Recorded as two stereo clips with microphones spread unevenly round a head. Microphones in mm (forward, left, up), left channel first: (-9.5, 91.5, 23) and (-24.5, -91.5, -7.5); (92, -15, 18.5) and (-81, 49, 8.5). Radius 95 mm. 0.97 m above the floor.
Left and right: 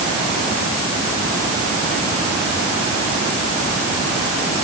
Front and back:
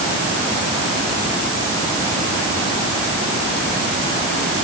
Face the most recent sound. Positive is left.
No sound to turn to.